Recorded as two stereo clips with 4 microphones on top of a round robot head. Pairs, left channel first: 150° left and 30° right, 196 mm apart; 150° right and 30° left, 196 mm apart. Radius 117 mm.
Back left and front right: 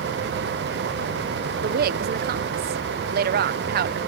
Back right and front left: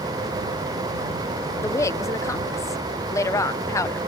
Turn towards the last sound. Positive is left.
turn(degrees=-75)